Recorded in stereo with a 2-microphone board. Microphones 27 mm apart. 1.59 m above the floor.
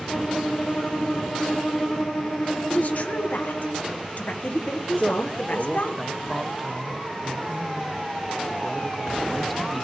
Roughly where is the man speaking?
Centre.